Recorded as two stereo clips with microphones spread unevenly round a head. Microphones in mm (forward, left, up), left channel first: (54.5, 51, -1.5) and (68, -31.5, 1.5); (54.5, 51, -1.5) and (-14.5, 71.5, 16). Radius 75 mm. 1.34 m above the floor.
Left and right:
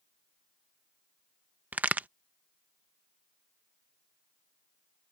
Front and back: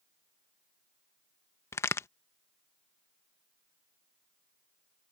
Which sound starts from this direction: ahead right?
A crack, at 1.7 s.